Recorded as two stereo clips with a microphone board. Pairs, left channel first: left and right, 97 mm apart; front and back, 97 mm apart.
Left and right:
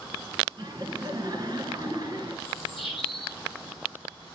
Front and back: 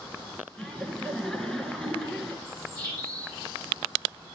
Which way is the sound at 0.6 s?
80° right.